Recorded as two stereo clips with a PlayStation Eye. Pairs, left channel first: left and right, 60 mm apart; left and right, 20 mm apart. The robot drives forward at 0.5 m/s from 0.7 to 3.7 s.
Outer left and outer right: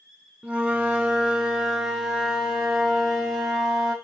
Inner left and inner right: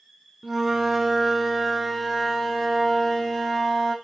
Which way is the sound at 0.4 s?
20° right (ahead or behind).